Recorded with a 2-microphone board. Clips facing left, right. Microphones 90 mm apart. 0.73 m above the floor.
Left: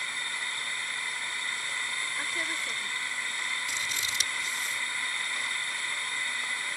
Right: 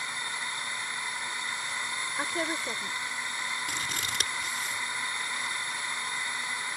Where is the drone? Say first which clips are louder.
Right 1 dB; 20° right (ahead or behind).